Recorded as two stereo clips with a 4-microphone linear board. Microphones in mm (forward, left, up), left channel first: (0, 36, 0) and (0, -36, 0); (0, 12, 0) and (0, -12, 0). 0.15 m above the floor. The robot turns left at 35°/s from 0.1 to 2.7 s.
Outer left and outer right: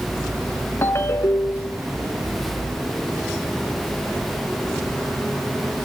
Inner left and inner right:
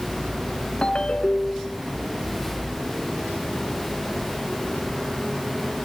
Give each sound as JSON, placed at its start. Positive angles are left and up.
{"t": 0.8, "sound": "a ringtone", "azimuth_deg": 110, "distance_m": 0.5}